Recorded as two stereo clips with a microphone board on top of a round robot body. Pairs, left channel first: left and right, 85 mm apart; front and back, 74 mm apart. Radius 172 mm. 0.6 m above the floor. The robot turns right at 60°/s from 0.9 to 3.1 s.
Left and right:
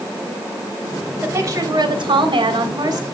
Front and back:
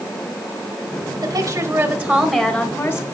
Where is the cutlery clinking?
I don't hear cutlery clinking.